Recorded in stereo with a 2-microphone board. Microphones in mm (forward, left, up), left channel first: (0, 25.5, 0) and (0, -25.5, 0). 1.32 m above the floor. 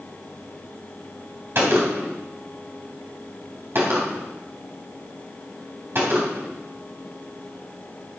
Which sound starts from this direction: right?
A gunshot, at 1.6 s.